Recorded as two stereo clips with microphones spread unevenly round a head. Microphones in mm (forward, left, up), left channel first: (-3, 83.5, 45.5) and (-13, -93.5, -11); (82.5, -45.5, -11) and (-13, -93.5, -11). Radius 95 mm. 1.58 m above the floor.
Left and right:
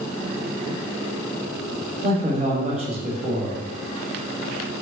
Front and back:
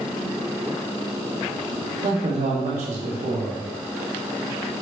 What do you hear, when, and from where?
2.0 s a man speaking: 150° right, 1.5 m